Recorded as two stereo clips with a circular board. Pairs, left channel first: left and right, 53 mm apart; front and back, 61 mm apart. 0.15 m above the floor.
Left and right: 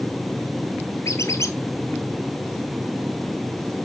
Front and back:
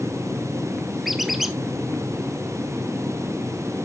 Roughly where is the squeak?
Left.